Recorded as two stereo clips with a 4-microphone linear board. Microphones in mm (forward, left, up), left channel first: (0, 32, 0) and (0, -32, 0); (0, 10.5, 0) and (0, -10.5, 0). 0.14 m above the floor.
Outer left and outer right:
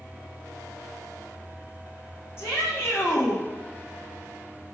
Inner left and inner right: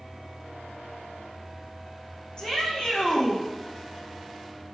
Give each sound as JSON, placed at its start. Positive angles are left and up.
{"t": 2.4, "sound": "a shout", "side_deg": 40, "distance_m": 6.0}